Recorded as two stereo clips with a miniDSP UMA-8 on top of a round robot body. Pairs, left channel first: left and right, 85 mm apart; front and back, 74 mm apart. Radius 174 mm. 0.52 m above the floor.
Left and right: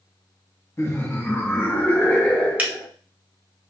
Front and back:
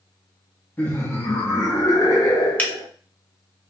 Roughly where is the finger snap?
Ahead right.